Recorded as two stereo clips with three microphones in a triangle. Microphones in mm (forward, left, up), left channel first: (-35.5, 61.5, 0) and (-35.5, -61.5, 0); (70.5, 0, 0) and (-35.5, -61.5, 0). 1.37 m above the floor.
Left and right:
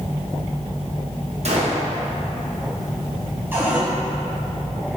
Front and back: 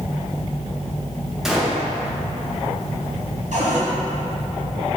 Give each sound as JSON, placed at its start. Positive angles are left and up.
{"t": 1.4, "sound": "a gunshot", "azimuth_deg": -65, "distance_m": 1.0}
{"t": 3.5, "sound": "a cupboard door", "azimuth_deg": -165, "distance_m": 1.3}